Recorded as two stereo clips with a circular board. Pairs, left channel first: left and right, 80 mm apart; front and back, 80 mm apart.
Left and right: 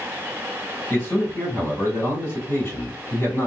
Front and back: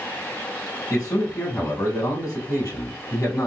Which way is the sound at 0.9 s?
35° left.